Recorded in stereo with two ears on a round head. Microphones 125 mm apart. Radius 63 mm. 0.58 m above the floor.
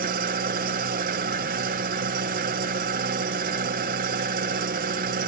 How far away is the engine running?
About 0.8 m.